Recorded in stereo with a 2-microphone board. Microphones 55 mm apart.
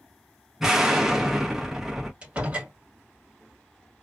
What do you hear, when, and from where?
0.6 s an explosion: 5° right (ahead or behind), 0.8 m
2.2 s a door slam: 20° right (ahead or behind), 1.4 m